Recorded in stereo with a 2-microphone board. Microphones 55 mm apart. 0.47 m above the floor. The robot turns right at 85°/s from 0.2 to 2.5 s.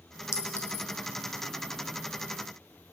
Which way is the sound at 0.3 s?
60° left (ahead or behind).